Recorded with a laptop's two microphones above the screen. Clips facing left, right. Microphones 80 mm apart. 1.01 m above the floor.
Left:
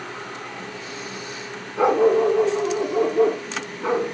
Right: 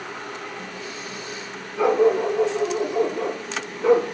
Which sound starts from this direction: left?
A dog barking, at 1.8 s.